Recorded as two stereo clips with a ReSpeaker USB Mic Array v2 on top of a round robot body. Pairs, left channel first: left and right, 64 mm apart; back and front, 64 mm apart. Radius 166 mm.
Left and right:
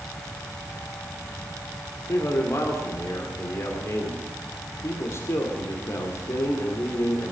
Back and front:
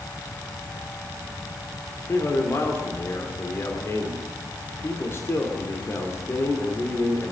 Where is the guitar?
I don't hear a guitar.